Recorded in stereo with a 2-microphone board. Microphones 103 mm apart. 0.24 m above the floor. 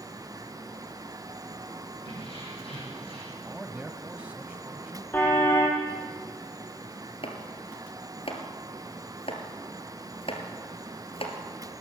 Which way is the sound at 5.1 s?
20° left (ahead or behind).